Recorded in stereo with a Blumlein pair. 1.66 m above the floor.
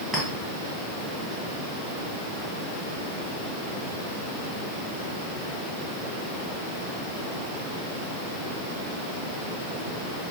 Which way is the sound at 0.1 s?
5° right.